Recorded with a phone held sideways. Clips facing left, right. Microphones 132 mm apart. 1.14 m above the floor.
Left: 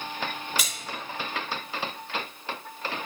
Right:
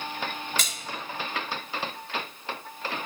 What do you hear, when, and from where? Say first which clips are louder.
0.6 s a splash: even; 10° left (ahead or behind), 3 m